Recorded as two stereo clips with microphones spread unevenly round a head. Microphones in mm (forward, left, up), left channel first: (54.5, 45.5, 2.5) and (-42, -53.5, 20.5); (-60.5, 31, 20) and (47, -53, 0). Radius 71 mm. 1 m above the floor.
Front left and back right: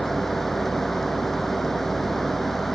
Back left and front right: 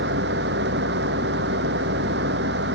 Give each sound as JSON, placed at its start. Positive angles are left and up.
{"t": 0.0, "sound": "a fan", "azimuth_deg": -45}